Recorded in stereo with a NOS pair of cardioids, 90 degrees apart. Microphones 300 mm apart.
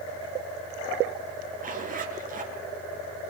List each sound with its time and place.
1.6 s a zipper: 30° right, 5.5 m